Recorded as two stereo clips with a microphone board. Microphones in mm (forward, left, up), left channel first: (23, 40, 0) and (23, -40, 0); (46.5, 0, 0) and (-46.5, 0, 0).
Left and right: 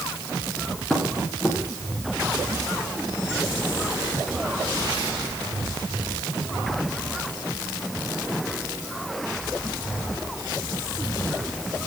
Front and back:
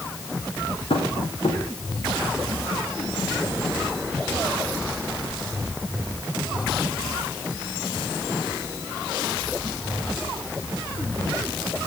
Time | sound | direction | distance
0.9 | tapping | 5° left | 8.5 m